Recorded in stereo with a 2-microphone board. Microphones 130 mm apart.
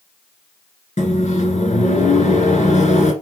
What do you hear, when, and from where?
1.0 s a microwave: 70° left (ahead or behind), 1.9 m